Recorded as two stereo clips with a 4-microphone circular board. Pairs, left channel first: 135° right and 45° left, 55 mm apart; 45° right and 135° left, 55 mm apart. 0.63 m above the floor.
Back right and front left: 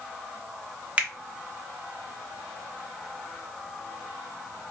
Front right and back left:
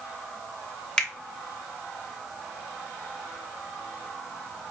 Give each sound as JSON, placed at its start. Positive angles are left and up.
{"t": 1.0, "sound": "a finger snap", "azimuth_deg": 20, "distance_m": 0.9}